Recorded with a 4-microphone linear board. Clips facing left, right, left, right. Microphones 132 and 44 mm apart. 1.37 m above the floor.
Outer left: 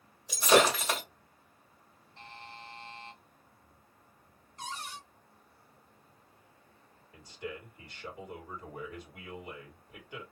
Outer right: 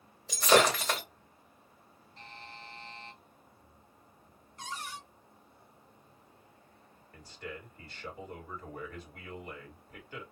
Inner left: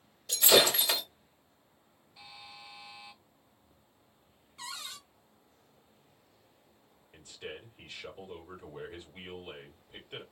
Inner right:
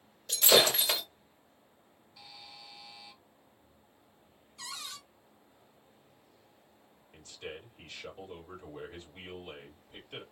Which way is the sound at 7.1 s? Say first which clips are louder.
Outer left 2 dB, even; 15° left (ahead or behind).